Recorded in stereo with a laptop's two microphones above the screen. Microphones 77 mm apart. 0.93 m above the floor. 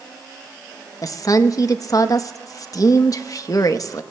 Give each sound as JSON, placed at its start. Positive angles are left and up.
{"t": 1.0, "sound": "a woman speaking", "side_deg": 50, "distance_m": 0.8}